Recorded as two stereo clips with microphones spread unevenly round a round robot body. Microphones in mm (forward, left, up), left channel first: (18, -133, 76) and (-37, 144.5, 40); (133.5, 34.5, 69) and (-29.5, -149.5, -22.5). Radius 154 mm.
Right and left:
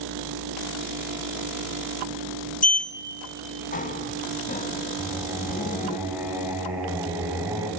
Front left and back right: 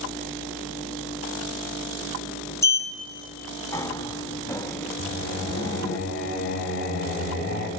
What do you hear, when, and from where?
2.6 s a sliding door: 70° right, 1.1 m
5.0 s singing: 20° left, 3.5 m